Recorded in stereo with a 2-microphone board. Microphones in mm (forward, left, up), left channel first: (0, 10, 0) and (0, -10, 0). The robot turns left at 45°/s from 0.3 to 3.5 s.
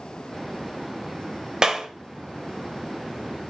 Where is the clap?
35° right (ahead or behind), 1.6 m; by 1.9 s 45° right (ahead or behind), 1.6 m.